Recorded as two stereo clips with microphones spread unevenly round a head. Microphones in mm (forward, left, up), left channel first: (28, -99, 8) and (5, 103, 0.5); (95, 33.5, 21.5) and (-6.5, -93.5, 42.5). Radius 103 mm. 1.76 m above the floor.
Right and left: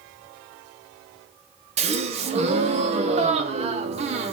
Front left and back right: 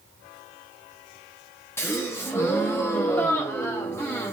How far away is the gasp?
About 0.6 m.